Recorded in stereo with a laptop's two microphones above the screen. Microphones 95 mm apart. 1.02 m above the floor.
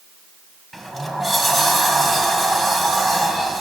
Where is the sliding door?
Centre (ahead or behind), 2.5 m.